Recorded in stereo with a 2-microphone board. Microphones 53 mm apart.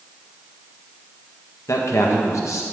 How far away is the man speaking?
About 1.6 m.